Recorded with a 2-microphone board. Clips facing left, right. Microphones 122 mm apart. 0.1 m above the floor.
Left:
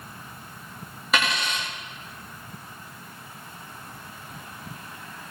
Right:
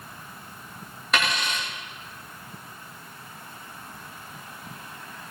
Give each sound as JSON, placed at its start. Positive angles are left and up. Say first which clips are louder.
{"t": 1.1, "sound": "a dropped coin", "louder": "left 1 dB", "side_deg": 5, "distance_m": 9.5}